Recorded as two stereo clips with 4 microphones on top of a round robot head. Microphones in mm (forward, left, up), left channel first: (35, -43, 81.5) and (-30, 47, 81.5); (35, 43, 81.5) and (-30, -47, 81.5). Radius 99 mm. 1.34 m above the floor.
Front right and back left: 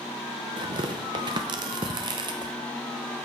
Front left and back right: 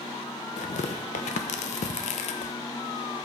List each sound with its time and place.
0.6 s tearing paper: 75° left, 0.6 m